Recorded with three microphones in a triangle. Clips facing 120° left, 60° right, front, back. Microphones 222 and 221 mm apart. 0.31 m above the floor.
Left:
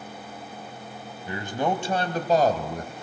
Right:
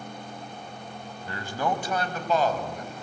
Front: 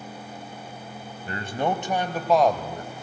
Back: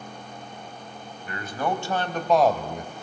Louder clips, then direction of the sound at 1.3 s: Left 3 dB, front 2 dB; 50° left.